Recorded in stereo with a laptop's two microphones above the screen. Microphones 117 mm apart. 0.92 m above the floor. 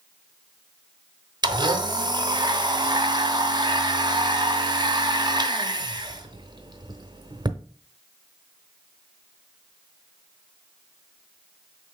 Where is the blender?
40° right (ahead or behind), 0.6 m.